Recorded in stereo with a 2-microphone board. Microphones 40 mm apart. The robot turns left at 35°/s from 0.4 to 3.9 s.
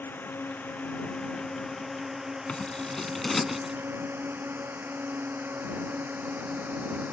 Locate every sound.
0.0 s a drone: 55° left (ahead or behind); by 7.1 s 45° right (ahead or behind)
2.5 s scissors: 35° left; by 3.8 s 10° right